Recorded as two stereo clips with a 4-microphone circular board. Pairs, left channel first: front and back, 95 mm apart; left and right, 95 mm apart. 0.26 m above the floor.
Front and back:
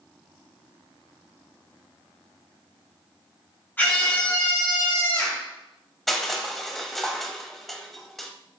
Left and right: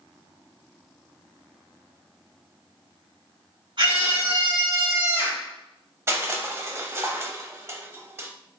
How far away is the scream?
About 2.5 m.